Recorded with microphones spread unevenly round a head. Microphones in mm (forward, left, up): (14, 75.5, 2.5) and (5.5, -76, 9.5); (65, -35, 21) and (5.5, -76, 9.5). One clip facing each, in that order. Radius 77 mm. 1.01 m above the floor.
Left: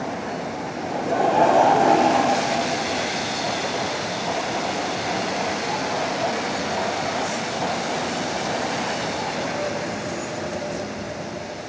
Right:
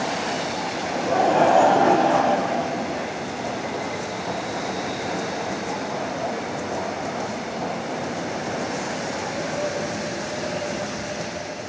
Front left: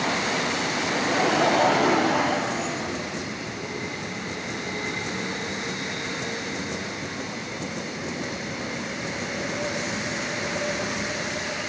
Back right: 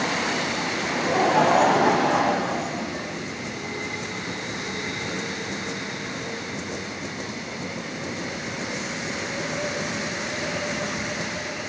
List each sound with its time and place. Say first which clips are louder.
0.8 s laughter: even, back right 2 dB; 140° right, 6 m